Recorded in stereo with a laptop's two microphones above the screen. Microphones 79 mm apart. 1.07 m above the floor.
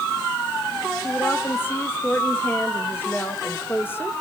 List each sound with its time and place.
1.0 s a woman speaking: 25° left (ahead or behind), 1.5 m